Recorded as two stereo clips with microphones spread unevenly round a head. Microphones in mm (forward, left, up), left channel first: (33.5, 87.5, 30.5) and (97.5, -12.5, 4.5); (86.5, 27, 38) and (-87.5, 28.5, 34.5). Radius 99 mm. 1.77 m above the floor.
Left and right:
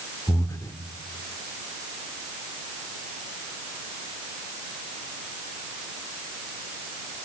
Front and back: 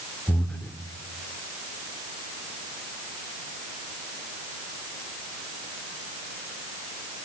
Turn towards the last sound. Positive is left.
turn(degrees=80)